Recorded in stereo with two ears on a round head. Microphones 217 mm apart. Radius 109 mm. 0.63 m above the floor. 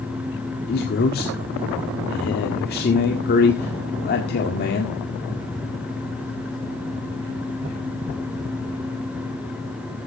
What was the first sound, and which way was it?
A man speaking, 40° left (ahead or behind).